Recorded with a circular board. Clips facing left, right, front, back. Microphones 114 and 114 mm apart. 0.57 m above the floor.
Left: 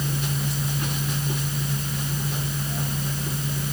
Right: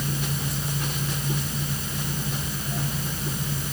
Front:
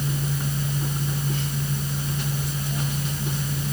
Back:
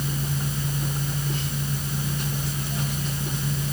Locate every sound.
Only background noise.